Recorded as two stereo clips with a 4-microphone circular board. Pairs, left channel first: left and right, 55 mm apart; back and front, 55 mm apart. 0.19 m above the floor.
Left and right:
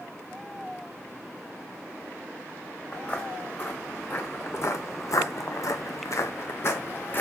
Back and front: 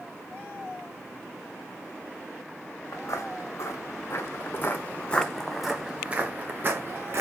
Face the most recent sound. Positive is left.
turn(degrees=40)